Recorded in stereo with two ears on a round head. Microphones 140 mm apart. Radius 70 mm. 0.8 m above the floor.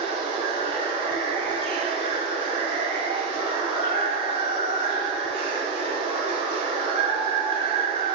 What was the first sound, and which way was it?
Running water, 35° right (ahead or behind).